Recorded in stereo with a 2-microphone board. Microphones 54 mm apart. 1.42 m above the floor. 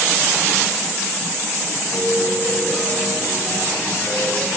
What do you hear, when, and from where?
1.9 s a piano: 40° left (ahead or behind), 3.5 m